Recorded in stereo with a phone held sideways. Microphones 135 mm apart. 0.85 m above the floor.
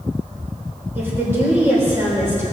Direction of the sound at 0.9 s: 15° right (ahead or behind).